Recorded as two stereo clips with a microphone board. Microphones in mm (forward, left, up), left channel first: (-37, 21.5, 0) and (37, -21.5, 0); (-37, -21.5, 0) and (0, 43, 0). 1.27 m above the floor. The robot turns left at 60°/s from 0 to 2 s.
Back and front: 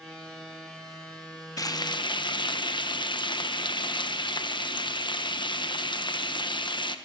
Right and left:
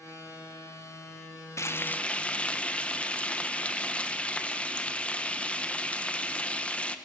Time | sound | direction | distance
1.6 | frying | 165° right | 1.2 m